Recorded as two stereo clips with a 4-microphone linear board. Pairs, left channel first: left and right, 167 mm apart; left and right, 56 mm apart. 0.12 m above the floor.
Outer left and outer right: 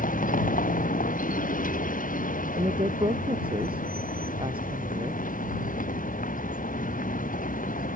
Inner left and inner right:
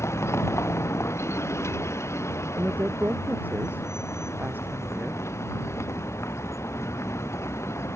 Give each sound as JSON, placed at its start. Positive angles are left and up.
{"t": 0.0, "sound": "a vehicle", "side_deg": 55}
{"t": 2.6, "sound": "a woman speaking", "side_deg": -30}